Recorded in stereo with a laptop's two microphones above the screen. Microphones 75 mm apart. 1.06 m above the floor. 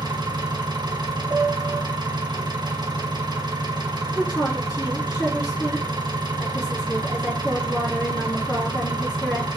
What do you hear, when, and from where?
0.0 s an engine running: 70° right (ahead or behind), 0.7 m
1.3 s a piano: 25° right (ahead or behind), 0.6 m
4.2 s a woman speaking: 55° left (ahead or behind), 1.6 m